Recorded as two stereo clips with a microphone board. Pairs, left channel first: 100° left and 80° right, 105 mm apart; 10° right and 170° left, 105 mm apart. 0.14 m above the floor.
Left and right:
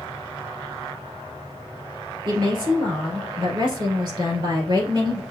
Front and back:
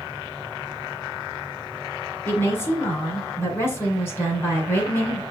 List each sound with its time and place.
2.2 s a woman speaking: 75° right, 2 m